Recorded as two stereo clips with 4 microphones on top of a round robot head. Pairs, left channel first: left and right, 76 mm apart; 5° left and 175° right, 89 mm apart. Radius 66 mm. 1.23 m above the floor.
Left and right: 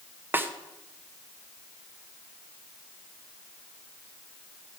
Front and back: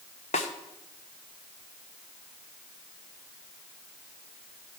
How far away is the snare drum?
About 0.9 m.